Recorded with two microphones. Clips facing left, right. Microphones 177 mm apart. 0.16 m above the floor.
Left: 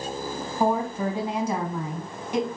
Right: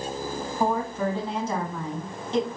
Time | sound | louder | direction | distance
0.6 | a woman speaking | left 2 dB | 15° left (ahead or behind) | 1.3 m